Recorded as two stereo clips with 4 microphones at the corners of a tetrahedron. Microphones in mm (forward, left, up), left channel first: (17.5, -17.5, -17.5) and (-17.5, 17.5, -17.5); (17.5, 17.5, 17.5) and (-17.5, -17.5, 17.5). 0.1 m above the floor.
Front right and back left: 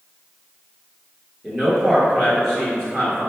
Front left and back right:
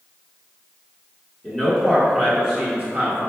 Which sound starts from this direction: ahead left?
A man speaking, at 1.4 s.